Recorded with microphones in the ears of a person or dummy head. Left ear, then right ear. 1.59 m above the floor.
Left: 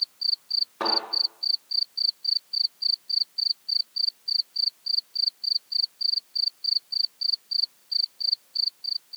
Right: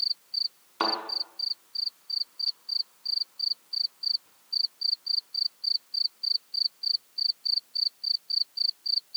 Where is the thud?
75° right (ahead or behind), 5 m.